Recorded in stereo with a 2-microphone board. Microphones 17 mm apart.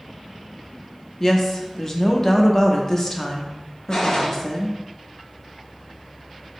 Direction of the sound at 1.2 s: 25° left (ahead or behind).